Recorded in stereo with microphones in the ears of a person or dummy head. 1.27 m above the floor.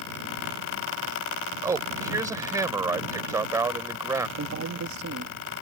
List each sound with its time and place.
1.6 s a man speaking: 15° right (ahead or behind)
4.4 s a man speaking: 80° right